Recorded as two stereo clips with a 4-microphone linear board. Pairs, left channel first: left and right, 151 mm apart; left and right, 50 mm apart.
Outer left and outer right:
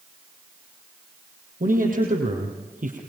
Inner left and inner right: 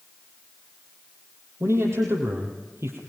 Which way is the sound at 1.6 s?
70° right (ahead or behind).